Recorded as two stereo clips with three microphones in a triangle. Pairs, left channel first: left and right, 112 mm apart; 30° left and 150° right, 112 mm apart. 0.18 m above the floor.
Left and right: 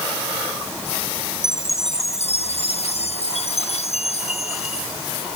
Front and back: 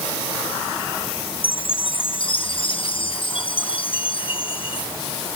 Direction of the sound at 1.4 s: 70° left.